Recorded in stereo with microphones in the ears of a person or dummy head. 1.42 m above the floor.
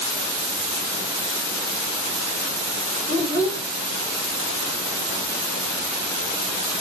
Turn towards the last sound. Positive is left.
turn(degrees=10)  # may be behind; listen again after turning